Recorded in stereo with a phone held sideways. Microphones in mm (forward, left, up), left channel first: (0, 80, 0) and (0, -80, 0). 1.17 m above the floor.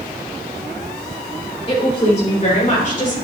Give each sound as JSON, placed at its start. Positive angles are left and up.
{"t": 1.7, "sound": "a woman speaking", "side_deg": 30, "distance_m": 3.0}